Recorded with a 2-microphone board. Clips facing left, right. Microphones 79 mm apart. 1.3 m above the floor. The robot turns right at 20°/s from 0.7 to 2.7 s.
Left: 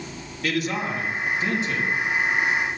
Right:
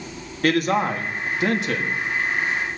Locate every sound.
0.4 s a man speaking: 50° right (ahead or behind), 2.5 m; by 2.0 s 75° right (ahead or behind), 2.5 m